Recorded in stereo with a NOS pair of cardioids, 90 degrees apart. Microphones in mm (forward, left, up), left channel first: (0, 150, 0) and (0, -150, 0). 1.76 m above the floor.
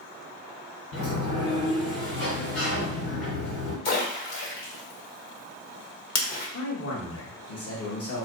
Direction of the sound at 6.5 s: 50° left.